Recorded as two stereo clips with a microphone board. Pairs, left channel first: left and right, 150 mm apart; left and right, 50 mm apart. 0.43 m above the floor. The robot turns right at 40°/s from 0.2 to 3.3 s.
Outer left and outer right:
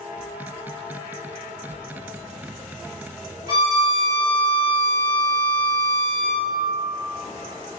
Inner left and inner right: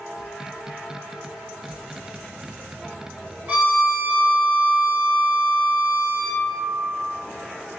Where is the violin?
30° right (ahead or behind), 1.8 m.